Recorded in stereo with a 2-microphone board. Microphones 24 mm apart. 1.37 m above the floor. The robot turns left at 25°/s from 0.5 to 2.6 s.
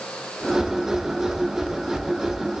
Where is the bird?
I don't hear a bird.